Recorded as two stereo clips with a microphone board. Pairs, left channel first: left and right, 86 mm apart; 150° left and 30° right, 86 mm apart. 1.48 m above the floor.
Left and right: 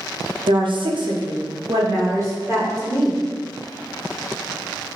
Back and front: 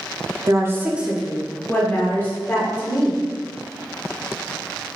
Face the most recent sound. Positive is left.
turn(degrees=-150)